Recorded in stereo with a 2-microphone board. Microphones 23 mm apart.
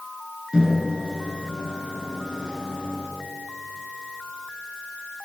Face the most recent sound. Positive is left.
turn(degrees=-45)  # may be behind; listen again after turning